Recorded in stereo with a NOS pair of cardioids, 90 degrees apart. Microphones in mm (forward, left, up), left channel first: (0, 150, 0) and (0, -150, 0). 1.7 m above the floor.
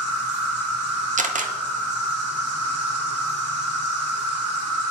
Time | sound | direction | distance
0.0 | an insect | 60° right | 1.8 m
1.2 | a camera shutter | 25° right | 0.6 m